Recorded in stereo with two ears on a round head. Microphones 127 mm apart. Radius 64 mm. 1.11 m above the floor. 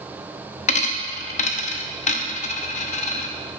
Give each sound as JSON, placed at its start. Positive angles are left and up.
{"t": 0.7, "sound": "a dropped coin", "side_deg": 55, "distance_m": 0.7}